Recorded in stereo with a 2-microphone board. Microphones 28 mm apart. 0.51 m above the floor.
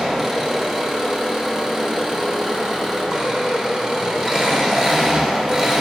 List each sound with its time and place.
0.0 s an engine running: 20° right (ahead or behind), 1.2 m